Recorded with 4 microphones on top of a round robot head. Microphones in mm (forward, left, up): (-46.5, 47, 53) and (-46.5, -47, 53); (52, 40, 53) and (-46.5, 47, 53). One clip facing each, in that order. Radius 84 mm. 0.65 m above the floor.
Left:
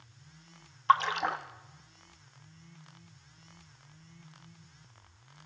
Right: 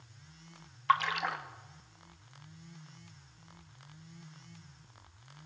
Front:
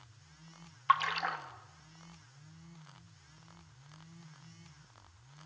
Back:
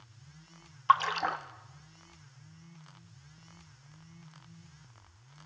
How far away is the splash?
About 0.8 m.